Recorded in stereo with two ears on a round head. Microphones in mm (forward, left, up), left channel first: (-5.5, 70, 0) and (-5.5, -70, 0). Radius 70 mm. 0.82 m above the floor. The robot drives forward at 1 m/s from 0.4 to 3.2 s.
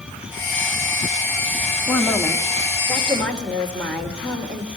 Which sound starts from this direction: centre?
A woman speaking, at 1.9 s.